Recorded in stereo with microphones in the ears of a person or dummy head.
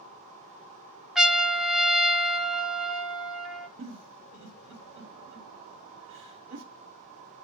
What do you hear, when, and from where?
1.1 s a trumpet: centre (ahead or behind), 0.7 m
3.8 s a giggle: 70° right (ahead or behind), 0.9 m